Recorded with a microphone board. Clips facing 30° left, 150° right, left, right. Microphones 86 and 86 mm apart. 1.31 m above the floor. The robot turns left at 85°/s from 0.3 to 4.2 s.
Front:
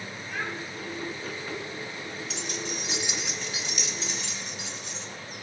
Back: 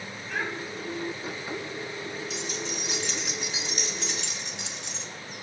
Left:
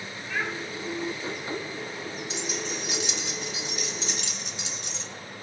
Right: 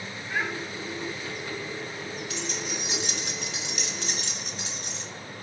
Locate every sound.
0.3 s a child speaking: 155° right, 6.5 m; by 0.5 s 175° right, 6.5 m
2.3 s keys jangling: 20° left, 1.4 m; by 5.0 s 140° right, 1.4 m